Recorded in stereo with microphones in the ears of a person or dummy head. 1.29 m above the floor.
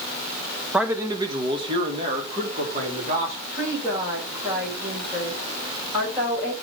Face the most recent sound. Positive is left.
turn(degrees=-25)  # may be behind; listen again after turning